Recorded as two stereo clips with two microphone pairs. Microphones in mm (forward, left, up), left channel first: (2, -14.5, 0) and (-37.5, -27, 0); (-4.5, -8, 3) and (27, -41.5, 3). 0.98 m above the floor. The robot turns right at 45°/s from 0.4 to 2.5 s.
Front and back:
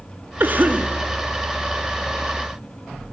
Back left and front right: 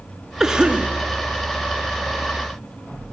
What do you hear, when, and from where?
0.4 s a cough: 130° right, 1.5 m; by 0.9 s 105° right, 1.5 m